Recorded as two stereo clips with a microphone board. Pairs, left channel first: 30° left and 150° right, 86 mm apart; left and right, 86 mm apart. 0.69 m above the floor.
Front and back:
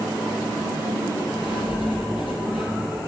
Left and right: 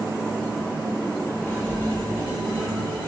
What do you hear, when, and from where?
1.4 s writing: 25° left, 4 m